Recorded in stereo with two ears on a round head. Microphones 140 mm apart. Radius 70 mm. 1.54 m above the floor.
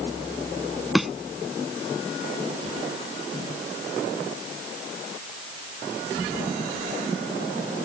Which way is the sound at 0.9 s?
Centre (ahead or behind).